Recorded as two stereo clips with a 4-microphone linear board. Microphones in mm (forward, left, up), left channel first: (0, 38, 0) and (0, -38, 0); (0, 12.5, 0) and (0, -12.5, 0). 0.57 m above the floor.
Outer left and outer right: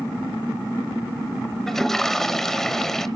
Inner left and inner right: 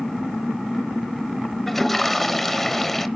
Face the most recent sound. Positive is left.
turn(degrees=5)  # may be behind; listen again after turning